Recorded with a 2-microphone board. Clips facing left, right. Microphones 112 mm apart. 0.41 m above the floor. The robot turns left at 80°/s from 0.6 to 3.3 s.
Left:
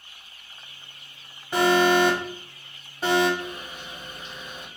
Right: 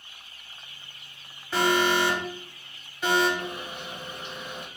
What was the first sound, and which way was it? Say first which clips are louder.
An alarm: left 4 dB; 20° left (ahead or behind).